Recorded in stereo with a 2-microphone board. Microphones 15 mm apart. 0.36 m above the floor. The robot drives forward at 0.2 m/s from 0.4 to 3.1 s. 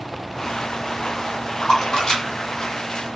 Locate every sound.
1.6 s a splash: 55° left (ahead or behind), 1.3 m; by 3.2 s 60° left (ahead or behind), 1.2 m